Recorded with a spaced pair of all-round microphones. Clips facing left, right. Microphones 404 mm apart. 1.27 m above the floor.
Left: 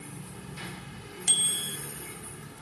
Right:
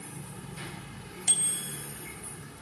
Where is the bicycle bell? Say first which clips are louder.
Left 1 dB; 30° left (ahead or behind), 2.5 m.